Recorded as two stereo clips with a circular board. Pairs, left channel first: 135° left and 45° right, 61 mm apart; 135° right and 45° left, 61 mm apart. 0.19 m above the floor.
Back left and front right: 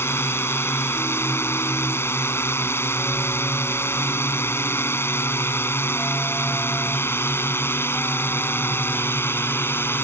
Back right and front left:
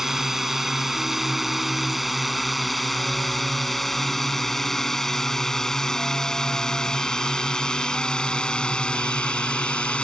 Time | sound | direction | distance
0.0 | a drone | 125° left | ?